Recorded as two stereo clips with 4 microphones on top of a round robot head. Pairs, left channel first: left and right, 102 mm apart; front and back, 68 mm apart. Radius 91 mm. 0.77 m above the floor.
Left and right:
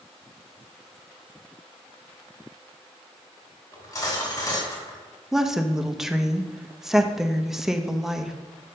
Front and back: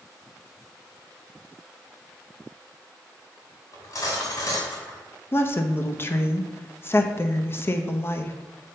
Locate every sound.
3.7 s cutlery clinking: 35° left, 2.5 m
5.3 s a woman speaking: 10° right, 0.7 m